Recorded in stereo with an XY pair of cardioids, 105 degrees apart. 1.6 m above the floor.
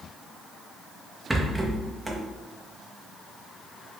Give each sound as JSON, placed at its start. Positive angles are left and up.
{"t": 1.3, "sound": "a rattle", "azimuth_deg": -10, "distance_m": 0.6}